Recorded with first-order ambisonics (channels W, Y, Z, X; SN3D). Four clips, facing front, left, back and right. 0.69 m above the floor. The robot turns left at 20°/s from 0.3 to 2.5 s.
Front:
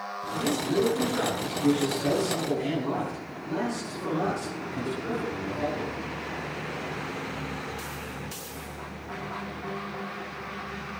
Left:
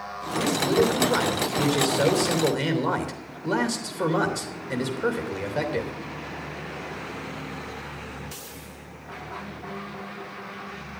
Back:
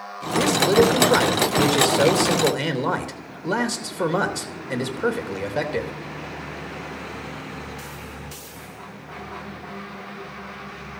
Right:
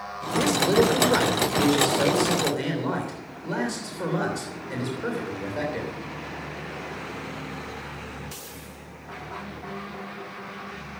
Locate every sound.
0.3 s a man speaking: 155° right, 3 m; by 5.9 s 160° left, 3 m